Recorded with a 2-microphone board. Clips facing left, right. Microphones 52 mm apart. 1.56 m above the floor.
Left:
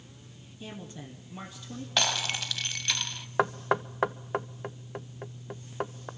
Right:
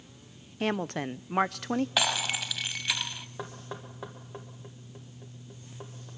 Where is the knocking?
70° left (ahead or behind), 0.7 m.